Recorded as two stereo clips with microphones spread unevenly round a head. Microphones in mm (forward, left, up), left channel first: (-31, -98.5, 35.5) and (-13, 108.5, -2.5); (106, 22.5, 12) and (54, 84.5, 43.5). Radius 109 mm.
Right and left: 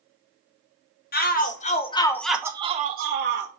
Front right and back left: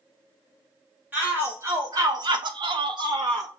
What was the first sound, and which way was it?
A shout, 145° right.